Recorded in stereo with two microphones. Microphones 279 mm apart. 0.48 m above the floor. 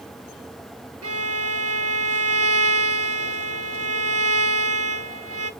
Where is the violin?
55° right (ahead or behind), 0.9 m.